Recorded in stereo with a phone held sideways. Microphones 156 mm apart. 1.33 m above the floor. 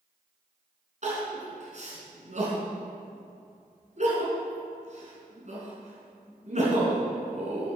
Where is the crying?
50° right (ahead or behind), 3.5 m.